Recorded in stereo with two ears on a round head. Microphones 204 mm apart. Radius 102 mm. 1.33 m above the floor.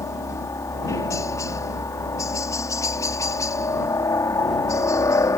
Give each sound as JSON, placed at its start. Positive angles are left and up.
{"t": 0.0, "sound": "a helicopter", "side_deg": 15}